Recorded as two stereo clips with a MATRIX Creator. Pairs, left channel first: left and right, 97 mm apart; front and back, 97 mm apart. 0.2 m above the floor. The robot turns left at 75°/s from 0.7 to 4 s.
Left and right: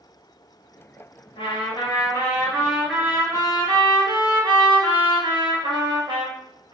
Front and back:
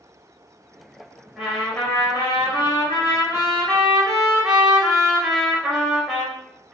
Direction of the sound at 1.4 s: 105° left.